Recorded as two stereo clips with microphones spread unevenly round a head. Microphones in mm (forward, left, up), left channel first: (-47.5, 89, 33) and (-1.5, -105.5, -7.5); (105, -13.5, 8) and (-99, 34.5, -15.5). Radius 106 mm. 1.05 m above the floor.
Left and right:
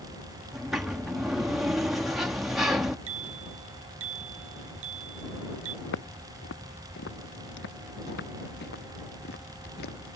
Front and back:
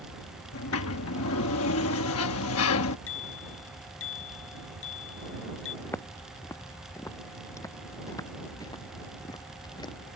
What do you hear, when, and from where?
0.5 s a sliding door: 10° left
3.1 s a bicycle bell: 45° right
5.8 s footsteps: 65° left; by 10.2 s 55° left